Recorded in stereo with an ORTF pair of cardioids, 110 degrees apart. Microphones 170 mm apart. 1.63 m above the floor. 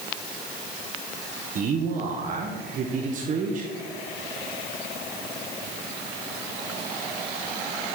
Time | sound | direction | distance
1.6 | a man speaking | 45° right | 1.5 m